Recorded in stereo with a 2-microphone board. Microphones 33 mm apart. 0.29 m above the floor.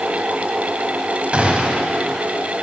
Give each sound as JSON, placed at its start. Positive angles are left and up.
{"t": 1.3, "sound": "a gunshot", "side_deg": -40, "distance_m": 1.7}